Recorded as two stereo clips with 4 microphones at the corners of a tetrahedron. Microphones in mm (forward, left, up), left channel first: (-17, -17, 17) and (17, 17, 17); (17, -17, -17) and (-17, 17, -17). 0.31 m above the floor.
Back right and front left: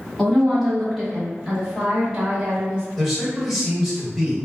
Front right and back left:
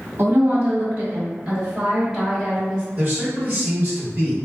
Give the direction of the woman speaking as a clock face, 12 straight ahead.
7 o'clock.